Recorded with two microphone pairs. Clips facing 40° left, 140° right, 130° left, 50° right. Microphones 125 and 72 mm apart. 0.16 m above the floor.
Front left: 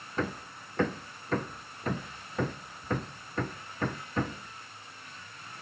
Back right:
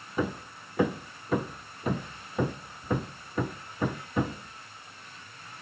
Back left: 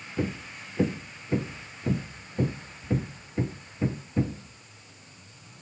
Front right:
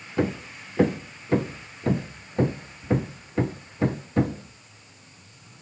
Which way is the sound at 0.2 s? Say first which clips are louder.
Back right 3 dB, front right 5 dB; 65° right.